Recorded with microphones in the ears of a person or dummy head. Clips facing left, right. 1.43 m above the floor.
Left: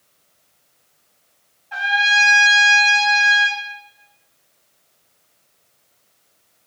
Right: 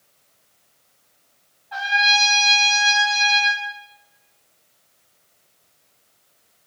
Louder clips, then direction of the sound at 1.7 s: Even; 35° left (ahead or behind).